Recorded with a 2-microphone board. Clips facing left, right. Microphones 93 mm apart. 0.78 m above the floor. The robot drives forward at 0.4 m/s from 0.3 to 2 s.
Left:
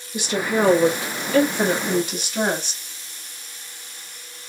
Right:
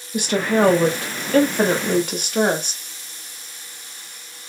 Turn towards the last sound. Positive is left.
turn(degrees=-55)  # may be behind; listen again after turning